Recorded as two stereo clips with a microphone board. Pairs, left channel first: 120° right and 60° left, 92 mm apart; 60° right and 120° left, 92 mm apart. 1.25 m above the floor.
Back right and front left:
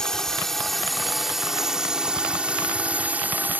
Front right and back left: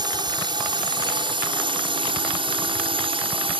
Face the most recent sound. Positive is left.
turn(degrees=130)